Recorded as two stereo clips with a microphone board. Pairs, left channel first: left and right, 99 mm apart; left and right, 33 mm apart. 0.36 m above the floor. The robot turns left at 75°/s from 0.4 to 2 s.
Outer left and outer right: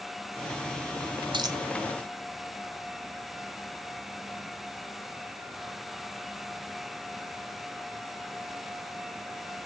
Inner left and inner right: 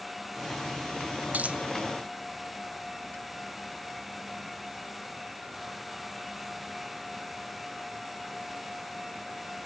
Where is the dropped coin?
50° right (ahead or behind), 0.6 m; by 1.6 s 30° right (ahead or behind), 0.6 m.